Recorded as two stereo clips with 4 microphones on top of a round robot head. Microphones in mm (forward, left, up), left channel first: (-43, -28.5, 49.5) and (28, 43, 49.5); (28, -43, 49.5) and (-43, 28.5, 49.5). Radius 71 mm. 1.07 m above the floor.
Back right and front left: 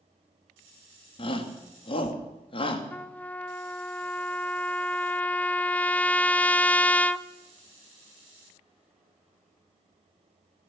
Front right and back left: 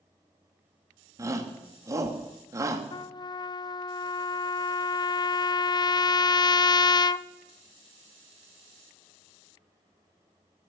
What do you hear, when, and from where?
1.2 s a shout: 165° right, 2.5 m
2.9 s a trumpet: 65° right, 0.5 m